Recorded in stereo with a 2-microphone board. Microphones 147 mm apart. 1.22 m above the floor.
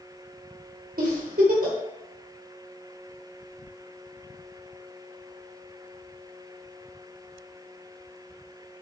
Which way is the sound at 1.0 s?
80° right.